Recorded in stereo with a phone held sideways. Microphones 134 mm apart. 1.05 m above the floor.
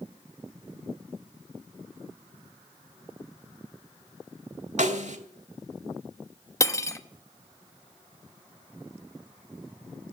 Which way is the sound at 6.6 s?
20° left (ahead or behind).